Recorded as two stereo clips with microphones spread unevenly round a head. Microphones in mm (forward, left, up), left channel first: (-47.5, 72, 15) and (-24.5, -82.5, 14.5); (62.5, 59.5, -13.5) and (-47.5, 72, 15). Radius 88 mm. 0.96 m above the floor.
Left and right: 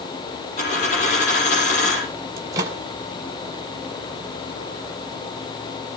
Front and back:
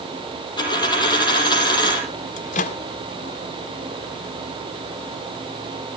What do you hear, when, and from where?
0.6 s a dropped coin: 45° left, 5.5 m
2.4 s a microwave: 10° right, 1.4 m